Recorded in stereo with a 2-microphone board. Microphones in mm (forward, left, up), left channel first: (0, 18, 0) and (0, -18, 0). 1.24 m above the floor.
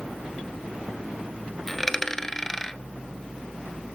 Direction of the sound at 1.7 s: 10° left (ahead or behind).